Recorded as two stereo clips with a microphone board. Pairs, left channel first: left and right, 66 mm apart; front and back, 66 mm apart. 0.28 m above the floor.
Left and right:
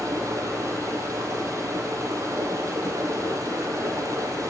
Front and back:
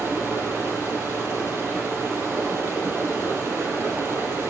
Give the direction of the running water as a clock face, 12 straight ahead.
4 o'clock.